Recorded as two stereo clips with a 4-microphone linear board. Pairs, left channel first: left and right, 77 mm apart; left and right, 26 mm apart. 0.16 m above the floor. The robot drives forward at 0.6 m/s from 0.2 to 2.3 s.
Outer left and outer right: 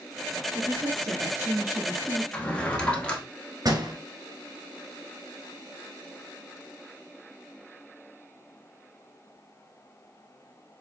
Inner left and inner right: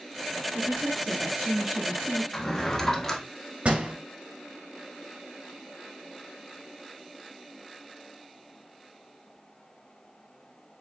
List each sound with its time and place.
0.5 s a woman speaking: 30° right (ahead or behind), 2.5 m; by 2.2 s 25° right (ahead or behind), 3.5 m
2.3 s a drawer: 15° left (ahead or behind), 1.1 m
3.6 s a door slam: 50° right (ahead or behind), 2 m